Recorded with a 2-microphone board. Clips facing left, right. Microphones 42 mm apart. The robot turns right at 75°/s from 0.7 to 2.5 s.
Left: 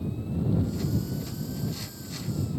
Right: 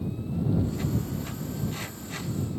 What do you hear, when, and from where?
Only background noise.